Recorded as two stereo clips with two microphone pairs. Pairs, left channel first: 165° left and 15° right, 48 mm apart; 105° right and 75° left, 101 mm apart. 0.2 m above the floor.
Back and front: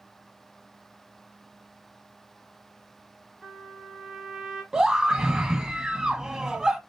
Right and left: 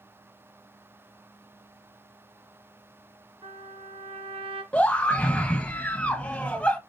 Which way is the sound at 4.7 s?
70° right.